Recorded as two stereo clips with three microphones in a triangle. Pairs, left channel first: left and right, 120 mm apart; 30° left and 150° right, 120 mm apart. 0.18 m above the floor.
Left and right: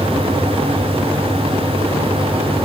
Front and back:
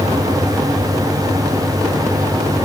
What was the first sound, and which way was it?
Only background noise.